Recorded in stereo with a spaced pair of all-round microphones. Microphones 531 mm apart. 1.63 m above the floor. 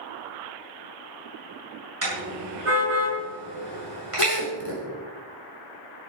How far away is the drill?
About 4 m.